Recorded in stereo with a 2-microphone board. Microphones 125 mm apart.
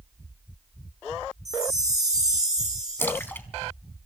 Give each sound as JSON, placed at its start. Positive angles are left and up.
{"t": 1.4, "sound": "a chime", "side_deg": -65, "distance_m": 3.0}
{"t": 3.0, "sound": "a splash", "side_deg": 15, "distance_m": 0.9}